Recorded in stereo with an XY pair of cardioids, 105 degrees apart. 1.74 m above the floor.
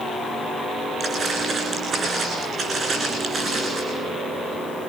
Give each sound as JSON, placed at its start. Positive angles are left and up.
{"t": 1.0, "sound": "footsteps", "azimuth_deg": -45, "distance_m": 9.0}